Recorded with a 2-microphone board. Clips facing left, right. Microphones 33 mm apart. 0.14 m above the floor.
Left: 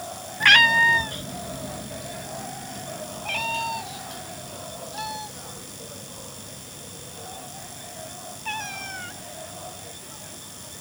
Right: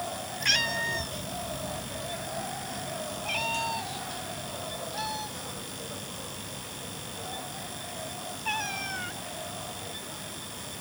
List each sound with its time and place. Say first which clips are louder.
0.4 s a cat meowing: left 13 dB; 50° left (ahead or behind); by 9.2 s centre (ahead or behind)